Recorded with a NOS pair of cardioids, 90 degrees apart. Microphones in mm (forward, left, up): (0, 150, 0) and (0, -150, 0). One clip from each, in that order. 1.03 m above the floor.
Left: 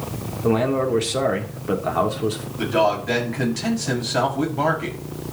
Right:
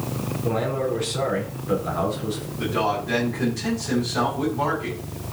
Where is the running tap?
No running tap in this recording.